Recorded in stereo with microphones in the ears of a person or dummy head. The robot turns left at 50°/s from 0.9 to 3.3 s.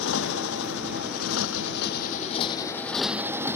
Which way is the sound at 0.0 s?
105° left.